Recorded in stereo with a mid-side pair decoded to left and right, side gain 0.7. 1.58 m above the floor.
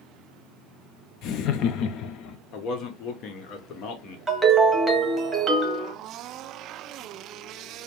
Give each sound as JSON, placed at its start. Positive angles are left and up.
{"t": 1.2, "sound": "laughter", "azimuth_deg": 55, "distance_m": 0.6}
{"t": 2.5, "sound": "a man speaking", "azimuth_deg": 55, "distance_m": 1.1}
{"t": 4.3, "sound": "a ringtone", "azimuth_deg": -15, "distance_m": 1.7}